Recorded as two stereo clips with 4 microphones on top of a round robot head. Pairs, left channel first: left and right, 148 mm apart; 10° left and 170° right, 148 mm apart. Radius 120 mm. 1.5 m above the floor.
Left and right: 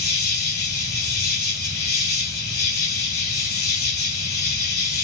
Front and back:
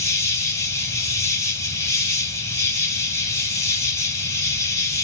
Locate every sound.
0.0 s an insect: 80° left, 2.5 m